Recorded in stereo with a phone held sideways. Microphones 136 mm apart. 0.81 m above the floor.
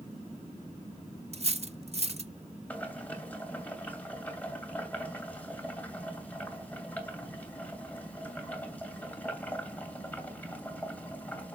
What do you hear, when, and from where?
1.3 s cutlery clinking: 50° right (ahead or behind), 0.6 m
2.7 s boiling: 10° left (ahead or behind), 2.5 m